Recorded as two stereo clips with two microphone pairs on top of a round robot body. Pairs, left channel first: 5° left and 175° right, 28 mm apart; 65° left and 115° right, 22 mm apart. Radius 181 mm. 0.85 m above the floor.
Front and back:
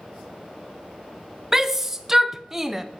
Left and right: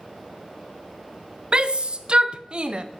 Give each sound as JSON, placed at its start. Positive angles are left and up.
{"t": 1.5, "sound": "a shout", "azimuth_deg": -100, "distance_m": 0.8}